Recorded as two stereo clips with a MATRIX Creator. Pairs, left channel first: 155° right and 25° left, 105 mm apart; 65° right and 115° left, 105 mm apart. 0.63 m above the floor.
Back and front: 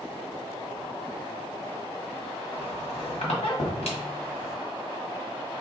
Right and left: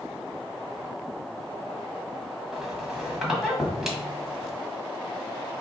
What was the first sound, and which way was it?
A squeak, 160° right.